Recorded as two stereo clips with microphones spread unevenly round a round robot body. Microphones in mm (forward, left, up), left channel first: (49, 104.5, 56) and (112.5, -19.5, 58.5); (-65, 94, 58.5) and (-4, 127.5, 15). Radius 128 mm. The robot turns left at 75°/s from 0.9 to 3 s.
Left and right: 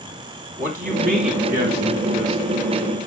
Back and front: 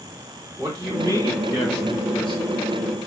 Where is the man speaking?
55° right, 3 m; by 2.4 s 170° right, 3 m.